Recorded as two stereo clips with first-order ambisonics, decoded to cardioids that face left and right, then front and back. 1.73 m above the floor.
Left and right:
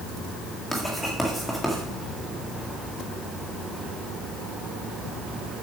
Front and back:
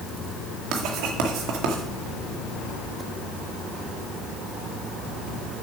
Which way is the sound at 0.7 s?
175° left.